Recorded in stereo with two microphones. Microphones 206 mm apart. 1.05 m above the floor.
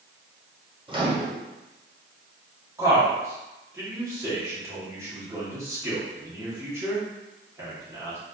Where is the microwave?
25° right (ahead or behind), 0.6 m.